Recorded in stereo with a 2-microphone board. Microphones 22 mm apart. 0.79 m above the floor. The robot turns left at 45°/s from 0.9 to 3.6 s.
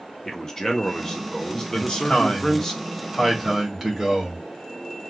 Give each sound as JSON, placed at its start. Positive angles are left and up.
{"t": 0.2, "sound": "a man speaking", "azimuth_deg": 130, "distance_m": 0.7}
{"t": 1.7, "sound": "a man speaking", "azimuth_deg": 70, "distance_m": 1.5}